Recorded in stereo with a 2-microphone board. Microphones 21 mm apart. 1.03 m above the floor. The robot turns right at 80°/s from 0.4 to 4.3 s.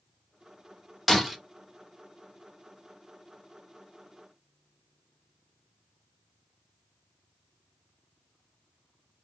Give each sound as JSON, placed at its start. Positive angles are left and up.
{"t": 1.1, "sound": "breaking glass", "side_deg": 10, "distance_m": 1.2}